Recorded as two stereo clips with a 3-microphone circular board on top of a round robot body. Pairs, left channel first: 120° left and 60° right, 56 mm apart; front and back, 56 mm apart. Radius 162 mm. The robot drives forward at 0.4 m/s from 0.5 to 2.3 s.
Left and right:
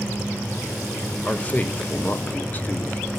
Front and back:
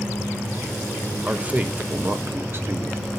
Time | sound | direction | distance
1.2 | a man speaking | 140° left | 0.8 m